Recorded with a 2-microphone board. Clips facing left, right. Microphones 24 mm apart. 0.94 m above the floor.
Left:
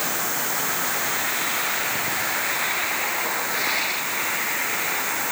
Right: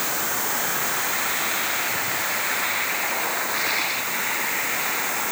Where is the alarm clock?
No alarm clock in this recording.